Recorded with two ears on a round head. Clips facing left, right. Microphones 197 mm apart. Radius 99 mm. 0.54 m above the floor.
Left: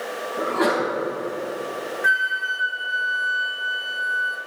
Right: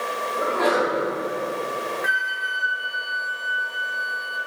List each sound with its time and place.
0.4 s a sneeze: 75° left (ahead or behind), 3.5 m
2.0 s a flute: 5° left (ahead or behind), 0.8 m